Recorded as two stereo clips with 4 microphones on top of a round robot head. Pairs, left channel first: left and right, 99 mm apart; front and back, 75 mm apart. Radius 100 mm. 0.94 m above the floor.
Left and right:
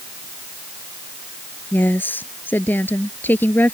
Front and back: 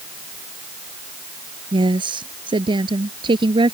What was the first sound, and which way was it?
A woman speaking, 160° left.